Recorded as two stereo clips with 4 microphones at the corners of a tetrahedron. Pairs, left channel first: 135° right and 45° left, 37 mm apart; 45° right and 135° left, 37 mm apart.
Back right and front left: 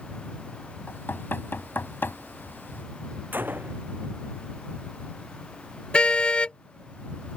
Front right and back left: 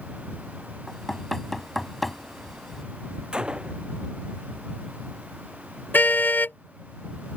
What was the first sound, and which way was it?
Knocking, 130° right.